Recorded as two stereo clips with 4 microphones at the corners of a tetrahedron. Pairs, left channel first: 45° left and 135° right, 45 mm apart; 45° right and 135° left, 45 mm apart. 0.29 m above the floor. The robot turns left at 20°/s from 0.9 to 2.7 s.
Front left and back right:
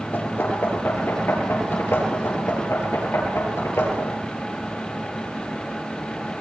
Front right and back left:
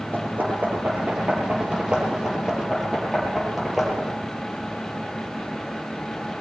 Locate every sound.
0.1 s knocking: 85° left, 6 m; by 4.2 s 50° left, 6 m